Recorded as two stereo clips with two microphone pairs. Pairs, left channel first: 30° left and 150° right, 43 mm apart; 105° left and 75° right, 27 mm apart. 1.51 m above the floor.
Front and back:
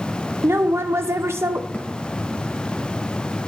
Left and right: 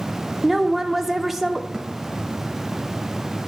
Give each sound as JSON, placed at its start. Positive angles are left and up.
{"t": 0.4, "sound": "a woman speaking", "azimuth_deg": -160, "distance_m": 0.5}
{"t": 1.7, "sound": "a thud", "azimuth_deg": -20, "distance_m": 1.9}